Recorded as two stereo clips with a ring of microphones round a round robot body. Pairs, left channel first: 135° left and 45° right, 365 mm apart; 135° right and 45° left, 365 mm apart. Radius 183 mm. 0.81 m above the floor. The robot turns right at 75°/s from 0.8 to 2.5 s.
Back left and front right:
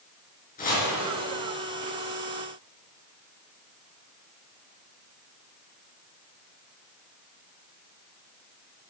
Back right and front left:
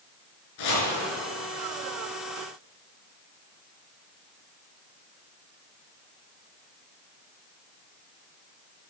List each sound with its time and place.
0.6 s chopping: 155° right, 5.5 m